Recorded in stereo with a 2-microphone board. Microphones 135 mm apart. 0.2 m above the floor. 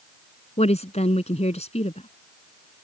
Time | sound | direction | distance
0.6 | a woman speaking | 55° left (ahead or behind) | ?